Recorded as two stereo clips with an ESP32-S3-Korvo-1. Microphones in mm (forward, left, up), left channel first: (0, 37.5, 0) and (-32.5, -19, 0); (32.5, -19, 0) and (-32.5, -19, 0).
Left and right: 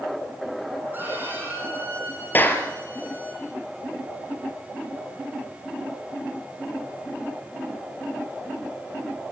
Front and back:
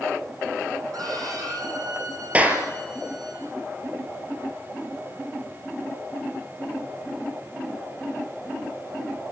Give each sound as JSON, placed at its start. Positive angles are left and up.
{"t": 0.9, "sound": "a violin", "azimuth_deg": 180, "distance_m": 6.5}
{"t": 2.3, "sound": "a clap", "azimuth_deg": 115, "distance_m": 2.0}